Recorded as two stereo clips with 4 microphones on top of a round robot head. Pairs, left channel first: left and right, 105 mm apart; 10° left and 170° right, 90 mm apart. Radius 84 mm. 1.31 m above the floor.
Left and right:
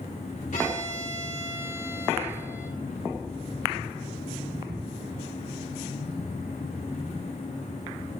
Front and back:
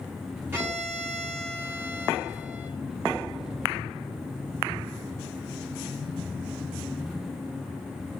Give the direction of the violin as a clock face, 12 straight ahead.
8 o'clock.